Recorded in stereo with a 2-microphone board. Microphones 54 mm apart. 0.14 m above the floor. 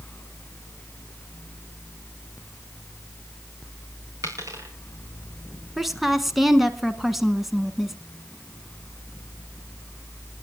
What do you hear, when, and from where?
4.2 s a dropped coin: 80° right, 4.5 m
5.8 s a woman speaking: 5° right (ahead or behind), 1.2 m